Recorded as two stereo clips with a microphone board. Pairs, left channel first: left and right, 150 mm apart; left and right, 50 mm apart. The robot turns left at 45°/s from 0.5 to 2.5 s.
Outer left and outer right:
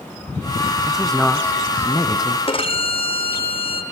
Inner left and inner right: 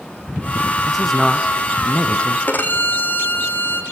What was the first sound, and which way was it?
A man speaking, 170° right.